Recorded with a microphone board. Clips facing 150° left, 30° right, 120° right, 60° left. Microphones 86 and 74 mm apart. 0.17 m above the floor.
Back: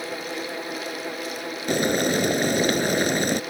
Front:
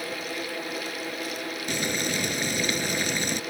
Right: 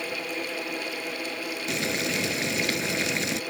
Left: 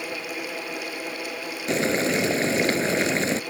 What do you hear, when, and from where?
1.7 s boiling: 110° left